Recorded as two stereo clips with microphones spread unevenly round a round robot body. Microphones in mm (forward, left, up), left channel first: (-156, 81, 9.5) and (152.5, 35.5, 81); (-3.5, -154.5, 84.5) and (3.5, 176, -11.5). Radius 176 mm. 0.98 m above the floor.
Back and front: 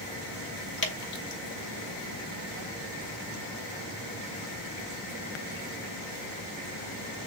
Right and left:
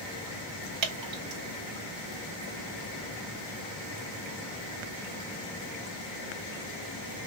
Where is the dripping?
120° left, 2.5 m.